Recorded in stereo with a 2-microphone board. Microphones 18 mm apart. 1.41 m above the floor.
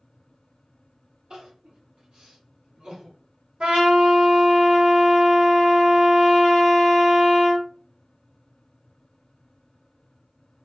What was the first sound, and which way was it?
Crying, 50° right (ahead or behind).